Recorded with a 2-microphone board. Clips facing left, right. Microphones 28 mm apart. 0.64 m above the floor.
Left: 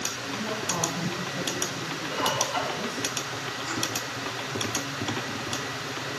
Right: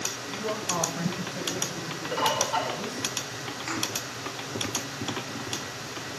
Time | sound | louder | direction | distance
0.3 | a man speaking | right 1 dB | 60° right (ahead or behind) | 1.6 m
2.1 | a bird | right 2 dB | 45° right (ahead or behind) | 2.5 m
3.7 | a thud | right 1 dB | 65° right (ahead or behind) | 5 m